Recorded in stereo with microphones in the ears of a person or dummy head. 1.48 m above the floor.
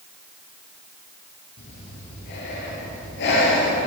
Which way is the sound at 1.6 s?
65° left (ahead or behind).